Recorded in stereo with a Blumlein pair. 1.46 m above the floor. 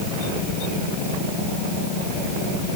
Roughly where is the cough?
No cough in this recording.